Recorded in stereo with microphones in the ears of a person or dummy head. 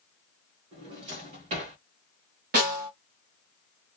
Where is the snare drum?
50° right (ahead or behind), 1.3 m.